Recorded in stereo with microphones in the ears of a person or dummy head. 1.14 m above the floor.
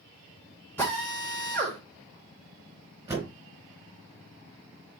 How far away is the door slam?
About 4.5 m.